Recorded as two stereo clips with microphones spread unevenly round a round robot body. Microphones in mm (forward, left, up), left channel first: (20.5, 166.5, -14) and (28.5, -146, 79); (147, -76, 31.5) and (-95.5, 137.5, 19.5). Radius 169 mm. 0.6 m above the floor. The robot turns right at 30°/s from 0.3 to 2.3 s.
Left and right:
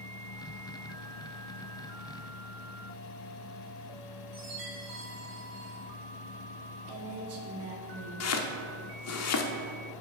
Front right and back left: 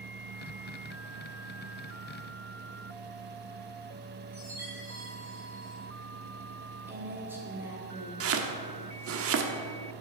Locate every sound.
4.3 s a chime: 135° right, 4 m
6.9 s a woman speaking: 140° right, 1.9 m
8.2 s chopping: 100° left, 0.9 m